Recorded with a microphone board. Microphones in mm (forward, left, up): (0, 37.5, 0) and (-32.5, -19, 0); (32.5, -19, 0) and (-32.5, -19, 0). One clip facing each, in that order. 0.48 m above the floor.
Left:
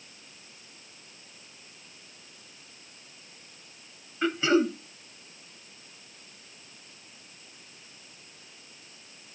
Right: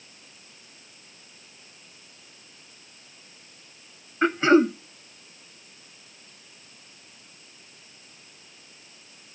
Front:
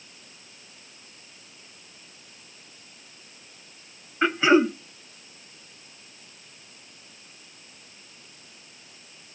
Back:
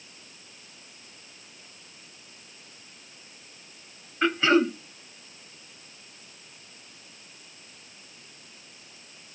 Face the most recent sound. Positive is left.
turn(degrees=-75)